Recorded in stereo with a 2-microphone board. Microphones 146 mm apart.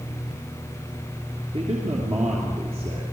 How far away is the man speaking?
About 2.5 m.